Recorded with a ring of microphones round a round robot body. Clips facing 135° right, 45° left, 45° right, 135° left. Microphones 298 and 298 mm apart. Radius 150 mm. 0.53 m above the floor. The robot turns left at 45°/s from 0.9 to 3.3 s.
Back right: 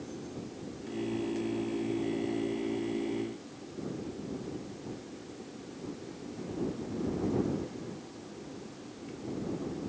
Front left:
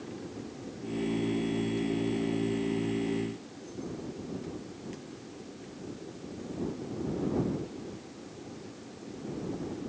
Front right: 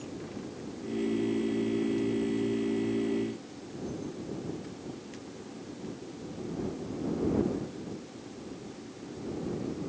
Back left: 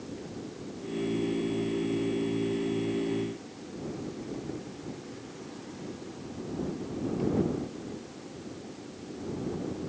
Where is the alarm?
No alarm in this recording.